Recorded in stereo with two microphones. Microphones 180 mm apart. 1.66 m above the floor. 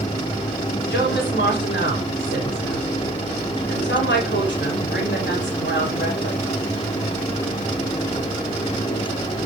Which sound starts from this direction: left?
A woman speaking, at 0.9 s.